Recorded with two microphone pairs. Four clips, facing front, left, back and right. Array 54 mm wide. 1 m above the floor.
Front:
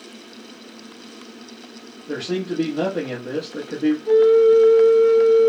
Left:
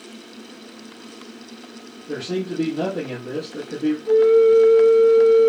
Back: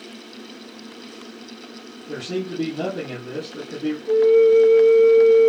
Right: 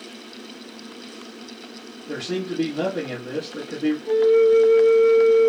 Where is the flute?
10° left, 3.5 m.